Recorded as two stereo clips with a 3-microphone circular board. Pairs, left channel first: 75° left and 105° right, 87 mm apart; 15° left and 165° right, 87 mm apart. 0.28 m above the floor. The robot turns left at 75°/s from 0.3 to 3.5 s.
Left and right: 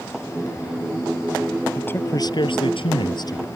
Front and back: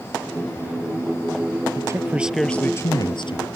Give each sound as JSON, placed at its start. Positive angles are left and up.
{"t": 1.8, "sound": "a man speaking", "azimuth_deg": 150}